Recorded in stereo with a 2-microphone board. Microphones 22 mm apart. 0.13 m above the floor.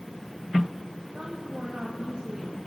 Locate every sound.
1.1 s a woman speaking: 50° right (ahead or behind), 6.5 m